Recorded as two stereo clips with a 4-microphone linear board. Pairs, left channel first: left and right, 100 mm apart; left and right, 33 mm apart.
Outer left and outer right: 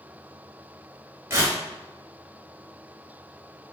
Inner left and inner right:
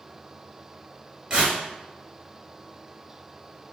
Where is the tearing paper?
25° right (ahead or behind), 1.4 m.